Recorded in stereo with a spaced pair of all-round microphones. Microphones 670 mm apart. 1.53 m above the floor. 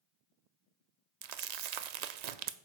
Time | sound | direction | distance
1.2 | crumpling | 70° right (ahead or behind) | 0.5 m